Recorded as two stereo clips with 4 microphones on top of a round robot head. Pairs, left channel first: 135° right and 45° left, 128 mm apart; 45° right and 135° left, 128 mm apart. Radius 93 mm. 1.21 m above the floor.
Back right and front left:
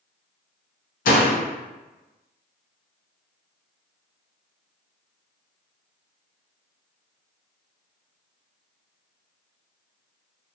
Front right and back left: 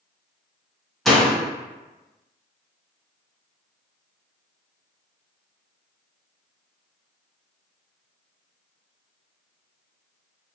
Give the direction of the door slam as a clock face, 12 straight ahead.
4 o'clock.